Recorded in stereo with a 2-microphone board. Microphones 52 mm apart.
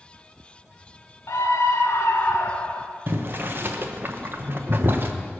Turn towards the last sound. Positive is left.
turn(degrees=-45)  # may be behind; listen again after turning